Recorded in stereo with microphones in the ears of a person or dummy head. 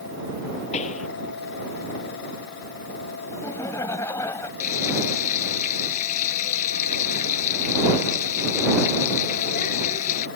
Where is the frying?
45° left (ahead or behind).